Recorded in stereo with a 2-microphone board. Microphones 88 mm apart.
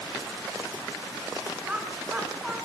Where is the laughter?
10° right (ahead or behind), 8 m.